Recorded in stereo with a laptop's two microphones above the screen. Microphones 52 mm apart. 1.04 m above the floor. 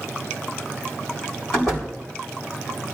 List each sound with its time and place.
1.5 s a door slam: 10° left (ahead or behind), 3.5 m